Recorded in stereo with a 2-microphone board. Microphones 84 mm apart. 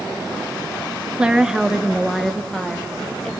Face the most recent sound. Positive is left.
turn(degrees=5)  # may be behind; listen again after turning